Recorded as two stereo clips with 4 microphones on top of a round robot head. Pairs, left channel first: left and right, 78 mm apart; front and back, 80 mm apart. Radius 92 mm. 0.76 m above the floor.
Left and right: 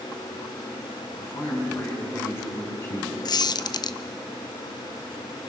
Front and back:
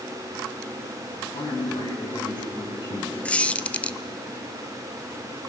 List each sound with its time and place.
1.2 s a man speaking: 30° left, 6.5 m
3.2 s a squeak: 75° left, 0.8 m